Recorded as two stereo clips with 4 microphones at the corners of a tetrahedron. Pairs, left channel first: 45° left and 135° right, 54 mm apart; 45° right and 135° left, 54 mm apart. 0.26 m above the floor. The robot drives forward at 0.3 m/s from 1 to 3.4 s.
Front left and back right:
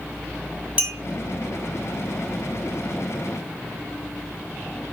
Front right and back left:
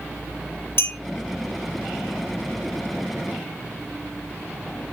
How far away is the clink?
About 1.6 m.